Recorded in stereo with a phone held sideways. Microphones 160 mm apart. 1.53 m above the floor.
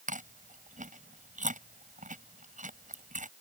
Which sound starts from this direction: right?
Chewing, at 0.1 s.